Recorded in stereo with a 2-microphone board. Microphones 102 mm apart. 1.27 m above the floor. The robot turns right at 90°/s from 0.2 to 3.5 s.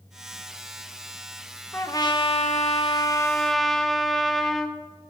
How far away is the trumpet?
About 1.3 m.